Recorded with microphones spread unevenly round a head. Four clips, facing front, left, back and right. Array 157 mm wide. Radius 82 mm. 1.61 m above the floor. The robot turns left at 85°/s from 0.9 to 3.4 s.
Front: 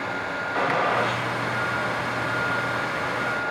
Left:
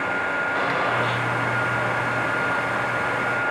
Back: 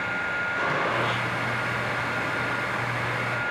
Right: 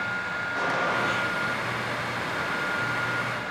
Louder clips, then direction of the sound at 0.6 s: Left 1 dB, front 5 dB; 10° left.